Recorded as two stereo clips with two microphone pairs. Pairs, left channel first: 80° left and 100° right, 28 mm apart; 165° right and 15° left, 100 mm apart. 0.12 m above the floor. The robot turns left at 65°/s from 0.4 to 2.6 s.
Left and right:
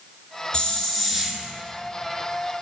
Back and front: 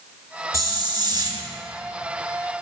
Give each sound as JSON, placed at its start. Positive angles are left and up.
{"t": 0.5, "sound": "a hiss", "azimuth_deg": 45, "distance_m": 0.7}